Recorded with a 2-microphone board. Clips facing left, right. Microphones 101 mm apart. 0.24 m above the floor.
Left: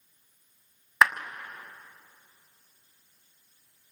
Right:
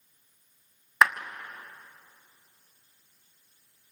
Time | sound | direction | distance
1.0 | a clap | centre (ahead or behind) | 1.8 m